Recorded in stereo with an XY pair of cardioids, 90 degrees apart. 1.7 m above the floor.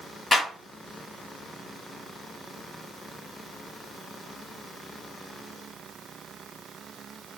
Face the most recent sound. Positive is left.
turn(degrees=30)